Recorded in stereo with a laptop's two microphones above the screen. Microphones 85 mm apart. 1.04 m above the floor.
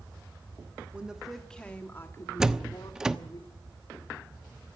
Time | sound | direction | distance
0.9 | a woman speaking | 15° right (ahead or behind) | 1.6 m
2.4 | a door slam | 5° right (ahead or behind) | 1.0 m